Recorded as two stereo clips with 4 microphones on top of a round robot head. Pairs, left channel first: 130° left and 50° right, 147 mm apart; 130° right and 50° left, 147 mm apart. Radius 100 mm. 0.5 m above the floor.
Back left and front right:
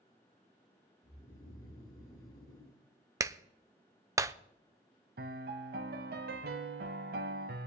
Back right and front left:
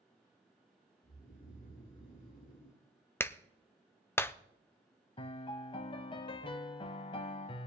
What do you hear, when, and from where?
1.0 s snoring: 170° right, 2.5 m
3.2 s a clap: 80° right, 0.5 m
5.2 s a piano: 75° right, 0.5 m